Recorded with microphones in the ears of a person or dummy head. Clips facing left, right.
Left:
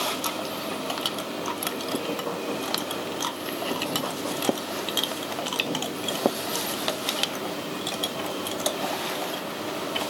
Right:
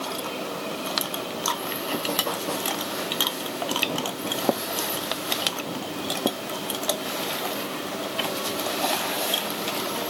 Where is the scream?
No scream in this recording.